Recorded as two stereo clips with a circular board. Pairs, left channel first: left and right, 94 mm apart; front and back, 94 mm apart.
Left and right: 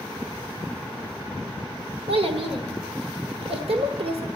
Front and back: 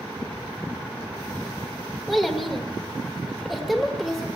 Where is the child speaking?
90° right, 1.6 m.